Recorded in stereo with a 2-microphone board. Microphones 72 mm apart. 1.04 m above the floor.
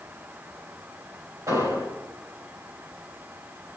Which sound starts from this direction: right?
An explosion, at 1.5 s.